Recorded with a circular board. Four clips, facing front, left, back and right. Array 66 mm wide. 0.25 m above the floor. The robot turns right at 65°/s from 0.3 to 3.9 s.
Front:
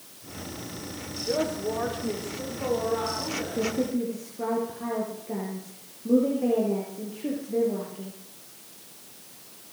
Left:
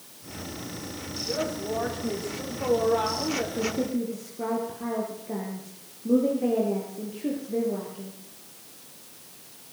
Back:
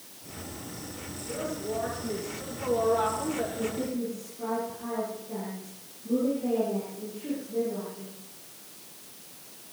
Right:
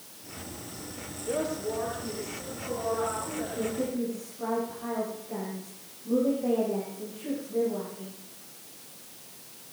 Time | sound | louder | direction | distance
1.3 | a woman speaking | even, front 6 dB | 30° right | 8.5 m
3.6 | a woman speaking | left 3 dB, front 4 dB | 25° left | 7 m